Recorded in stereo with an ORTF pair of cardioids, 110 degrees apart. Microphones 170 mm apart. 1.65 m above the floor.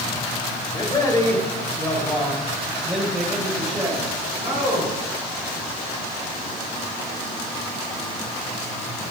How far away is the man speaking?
About 3.5 m.